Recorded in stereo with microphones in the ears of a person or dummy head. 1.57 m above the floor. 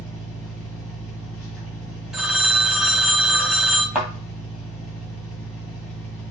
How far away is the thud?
About 1.8 m.